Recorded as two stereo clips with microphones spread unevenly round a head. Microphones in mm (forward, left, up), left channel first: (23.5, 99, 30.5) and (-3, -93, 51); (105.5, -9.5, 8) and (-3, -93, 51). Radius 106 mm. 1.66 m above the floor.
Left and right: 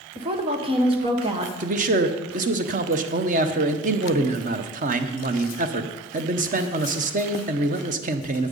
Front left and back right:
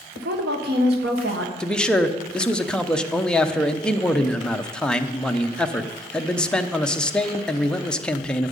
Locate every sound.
0.1 s a woman speaking: 165° right, 1.4 m
1.6 s a man speaking: 55° right, 0.8 m